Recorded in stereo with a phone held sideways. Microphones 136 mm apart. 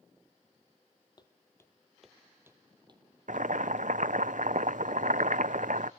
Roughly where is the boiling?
Right.